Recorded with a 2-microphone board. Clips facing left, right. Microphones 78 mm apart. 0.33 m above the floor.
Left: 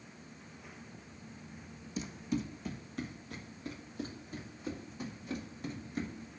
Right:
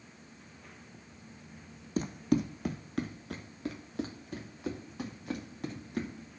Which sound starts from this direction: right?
Running footsteps, at 2.0 s.